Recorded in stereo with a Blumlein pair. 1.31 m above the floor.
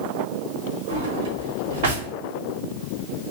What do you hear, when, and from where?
0.9 s a drawer: 50° right, 1.4 m